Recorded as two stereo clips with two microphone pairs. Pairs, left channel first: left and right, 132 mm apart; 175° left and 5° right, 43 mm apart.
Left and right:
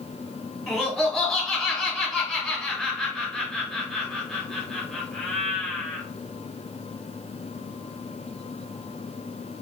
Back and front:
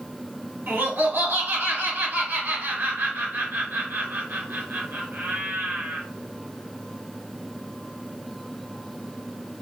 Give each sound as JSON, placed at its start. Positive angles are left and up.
{"t": 0.7, "sound": "laughter", "azimuth_deg": 5, "distance_m": 2.0}